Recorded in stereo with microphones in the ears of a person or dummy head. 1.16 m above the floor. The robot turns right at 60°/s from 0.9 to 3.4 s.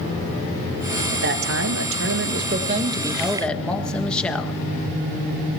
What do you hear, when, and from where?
1.1 s a man speaking: 130° right, 1.6 m; by 4.6 s 5° left, 1.6 m